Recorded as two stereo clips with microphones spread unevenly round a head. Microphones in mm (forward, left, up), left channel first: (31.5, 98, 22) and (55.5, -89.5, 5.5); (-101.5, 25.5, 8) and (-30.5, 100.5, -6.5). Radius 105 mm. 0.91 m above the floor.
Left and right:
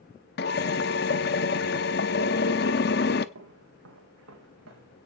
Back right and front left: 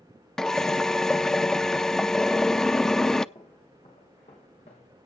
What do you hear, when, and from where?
0.4 s a drill: 140° left, 0.7 m
3.4 s footsteps: 70° right, 3.5 m; by 5.0 s 95° right, 4 m